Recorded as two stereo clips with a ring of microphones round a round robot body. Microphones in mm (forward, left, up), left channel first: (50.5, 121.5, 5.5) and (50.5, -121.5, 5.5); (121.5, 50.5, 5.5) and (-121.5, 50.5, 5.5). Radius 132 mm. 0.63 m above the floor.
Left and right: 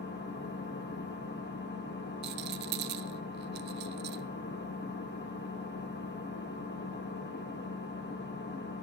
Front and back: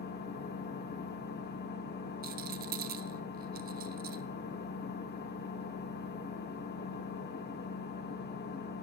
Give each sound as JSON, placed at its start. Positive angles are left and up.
{"t": 0.0, "sound": "an engine running", "azimuth_deg": 45, "distance_m": 1.5}
{"t": 2.2, "sound": "a rattle", "azimuth_deg": -130, "distance_m": 0.5}